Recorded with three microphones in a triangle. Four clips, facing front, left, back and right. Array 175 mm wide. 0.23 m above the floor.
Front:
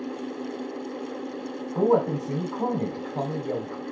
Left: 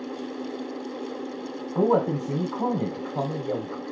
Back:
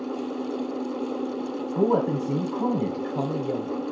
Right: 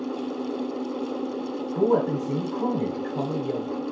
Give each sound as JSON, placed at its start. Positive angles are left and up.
{"t": 1.8, "sound": "a man speaking", "azimuth_deg": 65, "distance_m": 1.0}